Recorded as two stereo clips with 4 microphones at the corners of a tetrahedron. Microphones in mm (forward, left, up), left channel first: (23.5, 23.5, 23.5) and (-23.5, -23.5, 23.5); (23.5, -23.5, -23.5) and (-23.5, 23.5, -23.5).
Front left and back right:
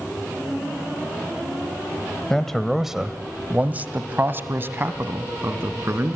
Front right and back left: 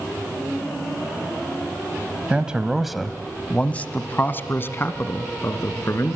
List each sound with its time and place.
2.3 s a man speaking: 110° left, 1.0 m; by 6.2 s 85° right, 2.5 m